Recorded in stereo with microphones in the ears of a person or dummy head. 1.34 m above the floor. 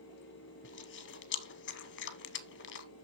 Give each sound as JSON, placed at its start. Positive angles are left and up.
{"t": 0.6, "sound": "chewing", "side_deg": 55, "distance_m": 0.7}